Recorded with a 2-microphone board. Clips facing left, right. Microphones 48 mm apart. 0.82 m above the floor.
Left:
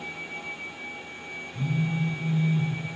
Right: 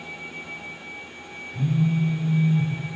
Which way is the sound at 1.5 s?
25° right (ahead or behind).